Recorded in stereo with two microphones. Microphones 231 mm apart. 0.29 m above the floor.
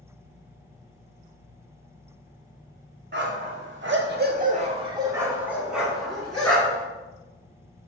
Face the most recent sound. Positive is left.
turn(degrees=5)  # may be behind; listen again after turning